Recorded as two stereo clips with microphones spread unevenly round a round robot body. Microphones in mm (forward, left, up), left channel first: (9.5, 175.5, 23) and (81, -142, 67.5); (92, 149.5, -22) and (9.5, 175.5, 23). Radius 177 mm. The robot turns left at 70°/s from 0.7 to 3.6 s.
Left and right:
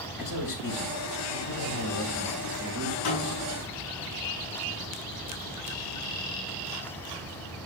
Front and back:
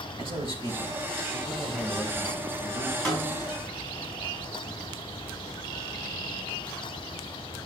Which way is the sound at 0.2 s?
140° left.